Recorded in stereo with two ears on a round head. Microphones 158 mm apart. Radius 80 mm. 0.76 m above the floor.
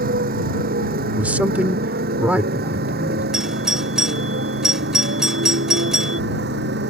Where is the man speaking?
10° right (ahead or behind).